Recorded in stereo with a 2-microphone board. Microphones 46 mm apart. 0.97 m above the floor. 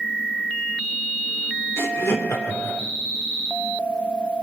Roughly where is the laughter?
Left.